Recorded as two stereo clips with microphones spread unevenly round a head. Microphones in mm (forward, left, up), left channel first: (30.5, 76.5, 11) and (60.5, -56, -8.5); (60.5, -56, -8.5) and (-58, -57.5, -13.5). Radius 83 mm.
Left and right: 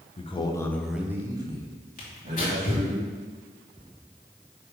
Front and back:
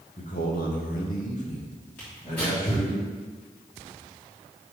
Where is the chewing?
I don't hear chewing.